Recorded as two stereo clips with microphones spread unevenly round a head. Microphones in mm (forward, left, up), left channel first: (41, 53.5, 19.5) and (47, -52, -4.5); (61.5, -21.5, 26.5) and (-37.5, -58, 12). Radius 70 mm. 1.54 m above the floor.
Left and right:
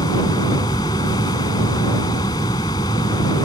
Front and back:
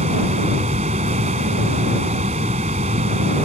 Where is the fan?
150° left.